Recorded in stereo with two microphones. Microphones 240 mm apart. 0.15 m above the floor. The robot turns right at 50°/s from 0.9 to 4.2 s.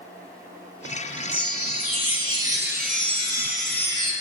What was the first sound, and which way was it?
A chime, 115° right.